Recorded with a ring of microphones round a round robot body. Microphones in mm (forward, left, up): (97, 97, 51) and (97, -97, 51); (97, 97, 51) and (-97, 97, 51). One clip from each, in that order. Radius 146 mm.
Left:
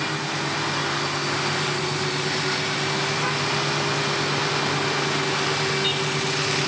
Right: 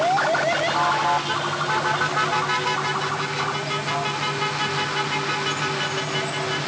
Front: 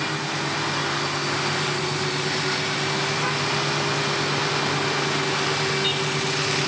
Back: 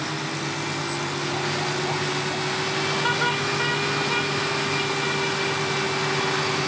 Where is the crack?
No crack in this recording.